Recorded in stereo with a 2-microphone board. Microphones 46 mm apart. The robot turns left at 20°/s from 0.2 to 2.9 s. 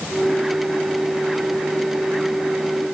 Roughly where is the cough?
I don't hear a cough.